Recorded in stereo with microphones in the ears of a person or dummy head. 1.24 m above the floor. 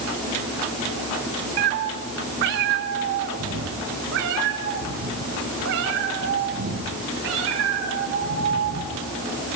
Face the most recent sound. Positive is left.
turn(degrees=-75)  # may be behind; listen again after turning